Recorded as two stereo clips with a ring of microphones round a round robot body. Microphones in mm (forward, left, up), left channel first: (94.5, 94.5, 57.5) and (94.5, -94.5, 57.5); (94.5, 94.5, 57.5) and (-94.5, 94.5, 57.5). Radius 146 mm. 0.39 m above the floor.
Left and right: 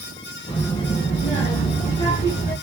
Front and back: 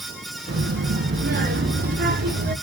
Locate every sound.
0.5 s a child speaking: 160° left, 4.5 m; by 2.5 s 155° left, 5.5 m